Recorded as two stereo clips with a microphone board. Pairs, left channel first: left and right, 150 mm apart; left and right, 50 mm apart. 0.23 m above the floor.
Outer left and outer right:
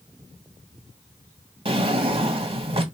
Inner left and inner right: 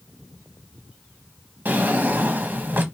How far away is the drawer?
About 0.9 m.